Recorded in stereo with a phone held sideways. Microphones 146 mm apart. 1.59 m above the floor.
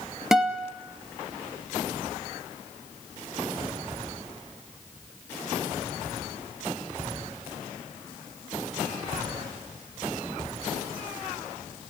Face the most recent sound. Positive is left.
turn(degrees=-5)  # may be behind; listen again after turning